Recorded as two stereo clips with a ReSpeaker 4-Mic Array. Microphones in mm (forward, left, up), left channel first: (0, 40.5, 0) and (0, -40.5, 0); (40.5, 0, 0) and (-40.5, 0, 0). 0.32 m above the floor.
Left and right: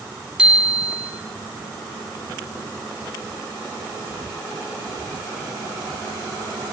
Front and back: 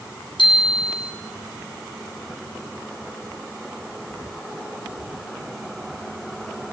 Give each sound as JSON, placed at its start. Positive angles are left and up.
{"t": 0.4, "sound": "a bicycle bell", "azimuth_deg": -10, "distance_m": 7.0}